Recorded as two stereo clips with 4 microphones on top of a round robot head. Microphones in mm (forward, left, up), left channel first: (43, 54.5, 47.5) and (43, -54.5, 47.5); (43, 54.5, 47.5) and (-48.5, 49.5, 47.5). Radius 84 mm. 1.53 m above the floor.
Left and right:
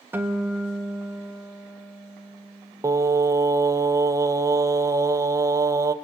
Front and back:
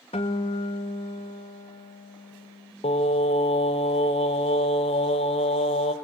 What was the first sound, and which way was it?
A guitar, 20° right.